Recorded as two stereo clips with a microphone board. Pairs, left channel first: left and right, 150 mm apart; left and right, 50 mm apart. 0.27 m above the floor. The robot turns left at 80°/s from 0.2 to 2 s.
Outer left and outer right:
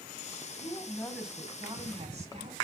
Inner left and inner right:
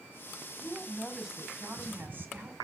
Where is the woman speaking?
50° left, 1.5 m; by 2.6 s 65° right, 1.5 m.